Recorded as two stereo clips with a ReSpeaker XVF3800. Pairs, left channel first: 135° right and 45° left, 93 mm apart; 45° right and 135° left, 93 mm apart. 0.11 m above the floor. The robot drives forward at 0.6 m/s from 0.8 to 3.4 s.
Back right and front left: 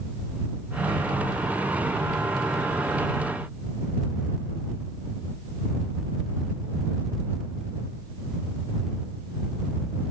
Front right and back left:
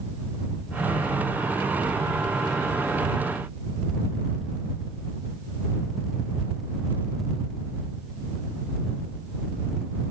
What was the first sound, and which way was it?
Only background noise.